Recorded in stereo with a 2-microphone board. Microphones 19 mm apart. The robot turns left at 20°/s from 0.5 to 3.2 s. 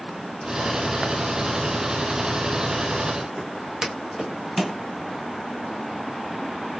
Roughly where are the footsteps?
Right.